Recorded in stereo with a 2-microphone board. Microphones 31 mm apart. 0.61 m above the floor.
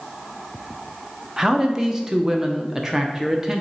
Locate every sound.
1.4 s a man speaking: 20° right (ahead or behind), 0.7 m